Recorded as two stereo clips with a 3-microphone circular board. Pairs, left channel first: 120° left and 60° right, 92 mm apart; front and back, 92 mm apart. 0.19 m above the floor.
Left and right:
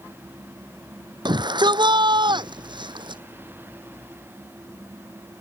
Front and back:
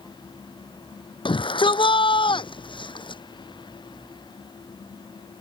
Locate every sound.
1.2 s a shout: 25° right; by 3.2 s 30° right